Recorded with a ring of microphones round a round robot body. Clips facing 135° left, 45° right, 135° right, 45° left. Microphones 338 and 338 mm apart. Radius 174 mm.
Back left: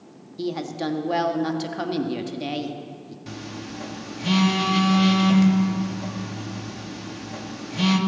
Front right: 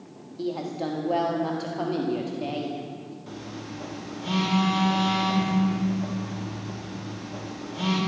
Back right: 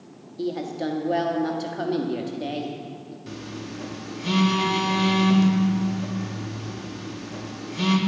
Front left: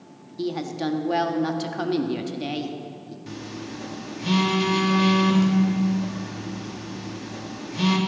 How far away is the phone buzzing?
About 1.6 m.